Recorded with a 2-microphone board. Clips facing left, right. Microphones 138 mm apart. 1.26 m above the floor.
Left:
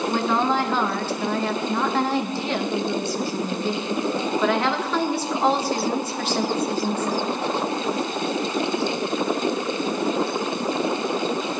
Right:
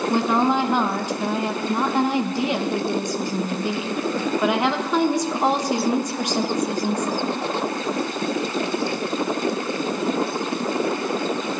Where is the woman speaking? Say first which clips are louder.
Right 3 dB; 15° right (ahead or behind), 0.7 m.